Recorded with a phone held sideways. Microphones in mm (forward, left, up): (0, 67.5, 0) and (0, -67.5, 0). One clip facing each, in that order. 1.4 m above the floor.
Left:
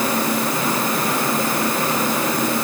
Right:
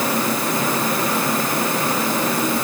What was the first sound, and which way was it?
Only background noise.